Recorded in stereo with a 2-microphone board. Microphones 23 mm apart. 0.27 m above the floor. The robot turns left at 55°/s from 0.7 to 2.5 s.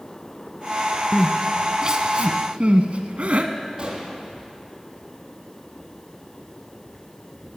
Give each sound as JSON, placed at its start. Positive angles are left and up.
{"t": 1.1, "sound": "crying", "side_deg": 10, "distance_m": 0.9}
{"t": 3.8, "sound": "a gunshot", "side_deg": -35, "distance_m": 3.0}